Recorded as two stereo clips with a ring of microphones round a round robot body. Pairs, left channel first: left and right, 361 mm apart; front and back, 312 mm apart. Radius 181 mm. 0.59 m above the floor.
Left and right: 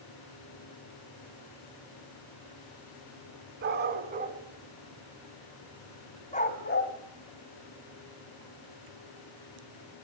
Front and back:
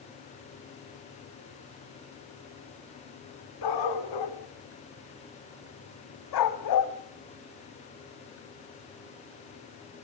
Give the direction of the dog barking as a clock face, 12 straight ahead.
1 o'clock.